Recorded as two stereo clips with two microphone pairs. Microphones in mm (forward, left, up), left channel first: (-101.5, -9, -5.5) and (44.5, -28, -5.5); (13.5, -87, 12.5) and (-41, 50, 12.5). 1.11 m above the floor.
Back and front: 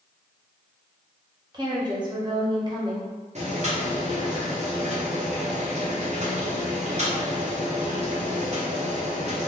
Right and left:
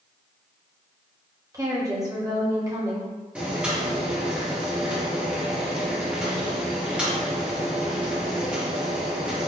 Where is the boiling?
30° left, 0.8 m.